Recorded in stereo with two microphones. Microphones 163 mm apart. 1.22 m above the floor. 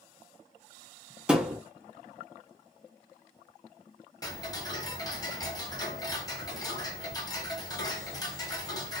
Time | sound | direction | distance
1.3 | a thud | 5° right (ahead or behind) | 0.7 m
4.2 | ticking | 20° left (ahead or behind) | 0.8 m